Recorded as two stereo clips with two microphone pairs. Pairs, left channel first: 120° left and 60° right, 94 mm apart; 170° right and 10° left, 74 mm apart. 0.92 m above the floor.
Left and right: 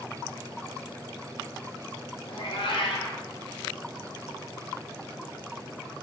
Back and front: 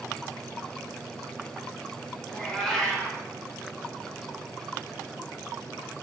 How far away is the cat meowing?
About 1.5 m.